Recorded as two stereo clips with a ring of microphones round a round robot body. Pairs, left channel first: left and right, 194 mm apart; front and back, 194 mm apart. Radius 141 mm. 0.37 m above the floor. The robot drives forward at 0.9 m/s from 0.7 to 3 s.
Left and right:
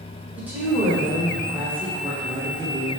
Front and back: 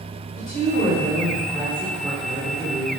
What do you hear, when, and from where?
0.4 s a woman speaking: 10° right, 1.6 m; by 2.9 s 165° right, 1.4 m